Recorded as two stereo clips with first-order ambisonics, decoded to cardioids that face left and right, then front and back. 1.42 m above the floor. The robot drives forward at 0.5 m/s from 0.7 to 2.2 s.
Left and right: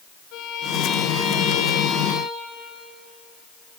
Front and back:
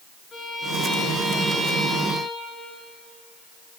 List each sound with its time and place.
0.3 s a violin: 60° left, 2.5 m; by 2.7 s 80° left, 2.5 m